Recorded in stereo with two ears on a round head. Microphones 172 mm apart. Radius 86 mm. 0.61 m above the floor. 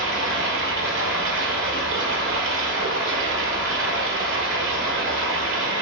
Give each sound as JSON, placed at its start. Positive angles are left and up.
{"t": 0.0, "sound": "running water", "side_deg": -65, "distance_m": 1.2}